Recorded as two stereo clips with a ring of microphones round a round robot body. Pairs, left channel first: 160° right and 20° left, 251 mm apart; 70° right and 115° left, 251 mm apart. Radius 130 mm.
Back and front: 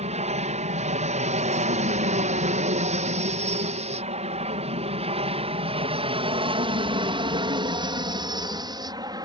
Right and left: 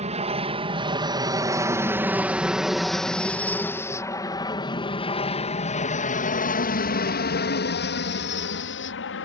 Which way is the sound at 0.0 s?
70° left.